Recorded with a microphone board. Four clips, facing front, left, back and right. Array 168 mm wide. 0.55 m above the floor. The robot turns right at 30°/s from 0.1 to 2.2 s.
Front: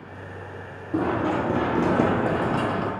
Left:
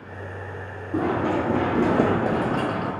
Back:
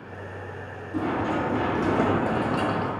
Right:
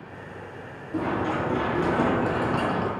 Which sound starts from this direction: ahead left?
Running footsteps, at 0.9 s.